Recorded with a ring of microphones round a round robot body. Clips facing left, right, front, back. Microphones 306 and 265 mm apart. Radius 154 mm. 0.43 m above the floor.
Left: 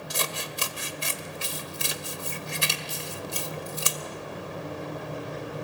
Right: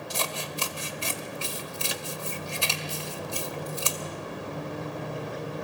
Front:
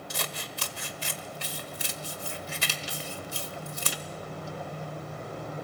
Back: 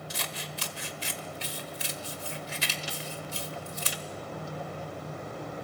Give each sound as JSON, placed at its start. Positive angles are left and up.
{"t": 0.1, "sound": "scissors", "azimuth_deg": 25, "distance_m": 1.7}